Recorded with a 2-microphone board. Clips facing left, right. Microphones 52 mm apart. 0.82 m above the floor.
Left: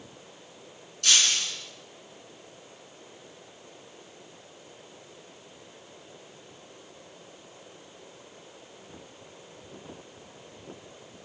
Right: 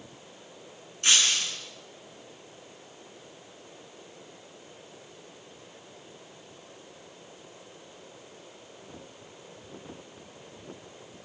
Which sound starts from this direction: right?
Breaking glass, at 1.0 s.